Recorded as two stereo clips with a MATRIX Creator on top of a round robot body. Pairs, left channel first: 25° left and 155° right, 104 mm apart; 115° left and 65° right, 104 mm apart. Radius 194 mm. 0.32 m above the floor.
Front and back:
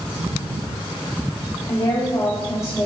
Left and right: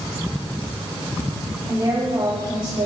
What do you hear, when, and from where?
1.7 s a woman speaking: 15° right, 2.5 m; by 2.9 s 40° right, 2.5 m